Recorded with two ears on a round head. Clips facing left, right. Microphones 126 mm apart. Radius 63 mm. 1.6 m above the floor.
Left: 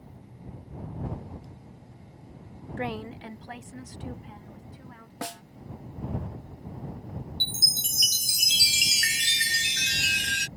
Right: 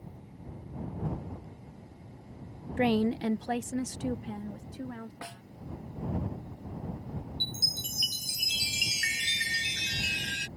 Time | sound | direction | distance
2.8 | a woman speaking | 20° right (ahead or behind) | ?
5.2 | a snare drum | 55° left (ahead or behind) | ?
7.4 | a chime | 60° left (ahead or behind) | ?